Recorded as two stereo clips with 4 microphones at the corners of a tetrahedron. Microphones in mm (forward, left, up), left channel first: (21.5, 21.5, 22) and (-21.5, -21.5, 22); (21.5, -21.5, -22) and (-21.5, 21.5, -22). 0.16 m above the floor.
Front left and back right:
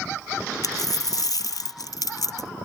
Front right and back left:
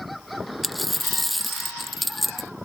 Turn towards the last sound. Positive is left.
turn(degrees=45)